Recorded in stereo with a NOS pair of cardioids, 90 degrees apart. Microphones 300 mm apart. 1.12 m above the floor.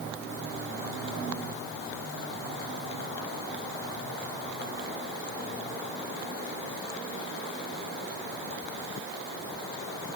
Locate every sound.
Only background noise.